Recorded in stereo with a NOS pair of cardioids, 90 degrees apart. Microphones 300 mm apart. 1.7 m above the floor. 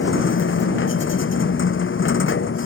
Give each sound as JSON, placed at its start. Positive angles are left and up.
{"t": 0.0, "sound": "a machine running", "azimuth_deg": 40}